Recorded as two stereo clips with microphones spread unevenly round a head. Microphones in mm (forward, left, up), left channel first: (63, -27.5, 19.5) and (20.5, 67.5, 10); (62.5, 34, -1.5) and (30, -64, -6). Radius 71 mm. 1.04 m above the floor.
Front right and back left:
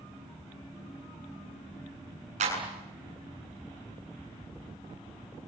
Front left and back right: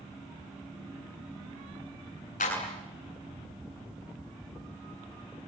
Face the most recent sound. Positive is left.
turn(degrees=105)